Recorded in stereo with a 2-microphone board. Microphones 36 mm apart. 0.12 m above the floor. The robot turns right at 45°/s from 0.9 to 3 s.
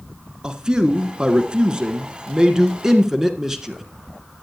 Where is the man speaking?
20° right (ahead or behind), 1.1 m; by 3.8 s 15° right (ahead or behind), 1.1 m.